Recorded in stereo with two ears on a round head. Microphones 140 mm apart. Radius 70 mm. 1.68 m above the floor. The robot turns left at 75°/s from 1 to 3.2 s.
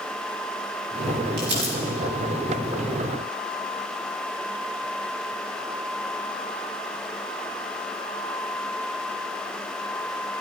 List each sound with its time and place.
1.4 s crumpling: 65° right (ahead or behind), 10 m; by 1.7 s 85° right, 10 m